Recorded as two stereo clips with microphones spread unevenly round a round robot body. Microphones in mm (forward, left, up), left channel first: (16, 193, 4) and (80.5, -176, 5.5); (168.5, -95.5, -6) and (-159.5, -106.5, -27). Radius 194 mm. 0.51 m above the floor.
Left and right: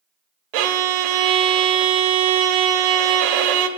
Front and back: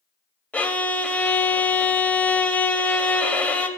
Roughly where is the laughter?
I don't hear laughter.